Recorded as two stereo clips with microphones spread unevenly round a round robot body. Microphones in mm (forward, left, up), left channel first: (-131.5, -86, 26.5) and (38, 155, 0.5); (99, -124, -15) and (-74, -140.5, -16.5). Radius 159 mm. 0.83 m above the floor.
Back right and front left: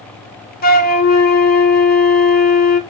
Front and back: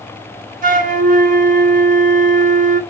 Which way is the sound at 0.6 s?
Straight behind.